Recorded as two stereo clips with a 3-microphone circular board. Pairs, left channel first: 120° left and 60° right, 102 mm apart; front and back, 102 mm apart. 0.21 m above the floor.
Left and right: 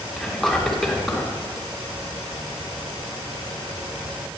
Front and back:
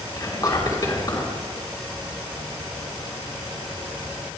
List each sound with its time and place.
0.2 s whispering: 35° left, 2.5 m